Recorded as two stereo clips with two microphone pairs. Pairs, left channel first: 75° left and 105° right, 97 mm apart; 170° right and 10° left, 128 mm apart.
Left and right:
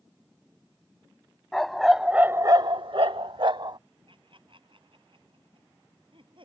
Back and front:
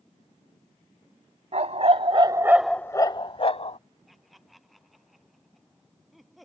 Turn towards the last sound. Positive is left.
turn(degrees=-80)